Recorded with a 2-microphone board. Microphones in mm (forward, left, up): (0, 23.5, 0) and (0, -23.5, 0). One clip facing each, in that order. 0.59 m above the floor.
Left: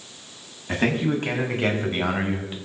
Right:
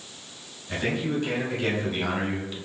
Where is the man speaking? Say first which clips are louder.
Left 4 dB; 60° left (ahead or behind), 5 m; by 2.6 s 25° left (ahead or behind), 3.5 m.